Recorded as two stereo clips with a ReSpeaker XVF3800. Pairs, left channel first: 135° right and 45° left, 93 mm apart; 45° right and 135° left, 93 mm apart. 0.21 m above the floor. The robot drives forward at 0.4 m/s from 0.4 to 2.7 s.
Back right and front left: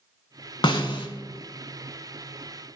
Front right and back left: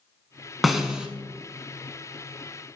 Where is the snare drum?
135° right, 0.7 m; by 1.1 s 145° right, 0.8 m.